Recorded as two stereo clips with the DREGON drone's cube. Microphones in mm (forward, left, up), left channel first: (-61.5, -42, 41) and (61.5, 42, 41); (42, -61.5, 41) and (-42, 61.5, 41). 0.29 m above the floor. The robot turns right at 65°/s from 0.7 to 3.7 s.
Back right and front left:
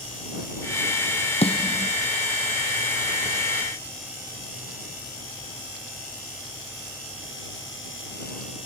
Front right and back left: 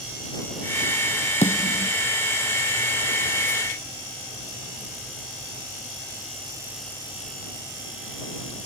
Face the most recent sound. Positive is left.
turn(degrees=50)